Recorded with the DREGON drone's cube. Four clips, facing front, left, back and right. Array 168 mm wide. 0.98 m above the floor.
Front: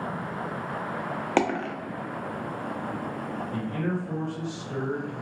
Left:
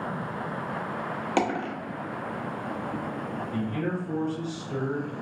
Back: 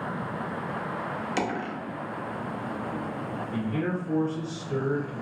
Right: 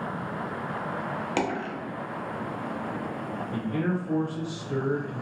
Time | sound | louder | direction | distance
1.4 | a dropped coin | left 3 dB, front 6 dB | 10° left | 0.7 m
3.5 | a man speaking | right 2 dB, back 1 dB | 110° right | 0.8 m